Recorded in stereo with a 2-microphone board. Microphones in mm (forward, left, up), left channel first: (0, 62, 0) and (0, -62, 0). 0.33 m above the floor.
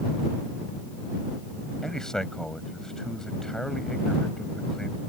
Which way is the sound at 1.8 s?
5° left (ahead or behind).